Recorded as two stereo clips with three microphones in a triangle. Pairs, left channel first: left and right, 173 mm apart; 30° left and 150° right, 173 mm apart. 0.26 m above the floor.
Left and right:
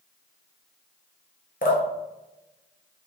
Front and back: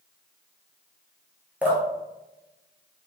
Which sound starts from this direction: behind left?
Dripping, at 1.6 s.